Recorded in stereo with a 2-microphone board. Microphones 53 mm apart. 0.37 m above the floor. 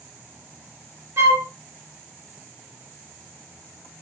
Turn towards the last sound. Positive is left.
turn(degrees=-70)  # may be behind; listen again after turning